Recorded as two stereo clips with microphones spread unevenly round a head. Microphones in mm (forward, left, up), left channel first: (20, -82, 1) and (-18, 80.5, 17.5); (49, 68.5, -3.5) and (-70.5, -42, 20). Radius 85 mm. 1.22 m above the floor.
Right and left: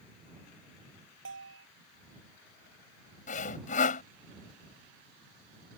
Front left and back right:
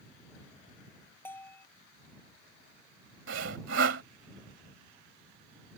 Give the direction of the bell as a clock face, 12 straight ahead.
8 o'clock.